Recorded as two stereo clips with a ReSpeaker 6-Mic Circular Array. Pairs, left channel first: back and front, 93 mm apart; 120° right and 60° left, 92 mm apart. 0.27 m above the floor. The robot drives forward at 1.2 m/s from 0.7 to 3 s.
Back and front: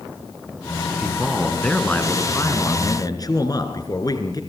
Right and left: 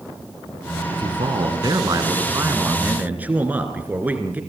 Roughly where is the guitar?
No guitar in this recording.